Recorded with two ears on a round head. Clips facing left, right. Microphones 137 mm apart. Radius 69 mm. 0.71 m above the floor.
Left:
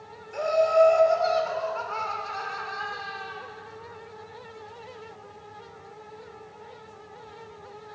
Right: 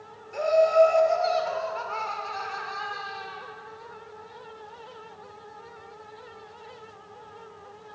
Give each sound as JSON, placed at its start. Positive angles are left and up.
{"t": 0.3, "sound": "laughter", "side_deg": 0, "distance_m": 1.9}